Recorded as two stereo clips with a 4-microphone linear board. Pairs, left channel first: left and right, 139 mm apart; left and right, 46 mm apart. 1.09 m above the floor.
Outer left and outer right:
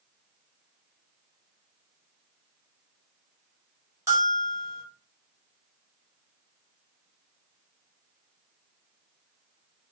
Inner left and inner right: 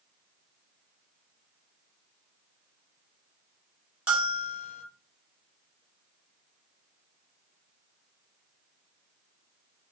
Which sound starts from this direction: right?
A bell, at 4.1 s.